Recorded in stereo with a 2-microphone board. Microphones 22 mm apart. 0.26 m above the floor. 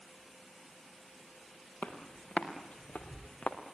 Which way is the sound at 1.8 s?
75° left (ahead or behind).